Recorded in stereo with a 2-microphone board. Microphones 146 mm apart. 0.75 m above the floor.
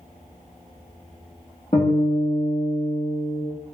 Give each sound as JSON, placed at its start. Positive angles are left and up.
{"t": 1.7, "sound": "a guitar", "side_deg": 45, "distance_m": 1.3}